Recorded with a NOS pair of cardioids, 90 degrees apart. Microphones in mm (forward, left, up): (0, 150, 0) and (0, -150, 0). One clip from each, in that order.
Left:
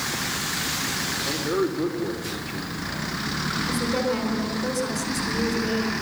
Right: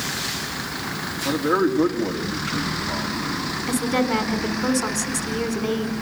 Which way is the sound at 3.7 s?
55° right.